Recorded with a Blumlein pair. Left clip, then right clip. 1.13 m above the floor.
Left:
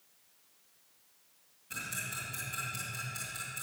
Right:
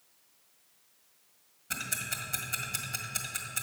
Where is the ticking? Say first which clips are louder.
Right 3 dB; 60° right, 1.6 m.